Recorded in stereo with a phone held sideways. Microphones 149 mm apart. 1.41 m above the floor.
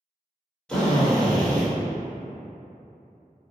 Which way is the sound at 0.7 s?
5° left (ahead or behind).